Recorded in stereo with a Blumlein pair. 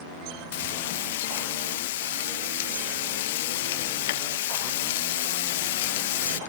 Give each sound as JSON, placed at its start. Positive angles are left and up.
{"t": 0.5, "sound": "frying", "azimuth_deg": 55}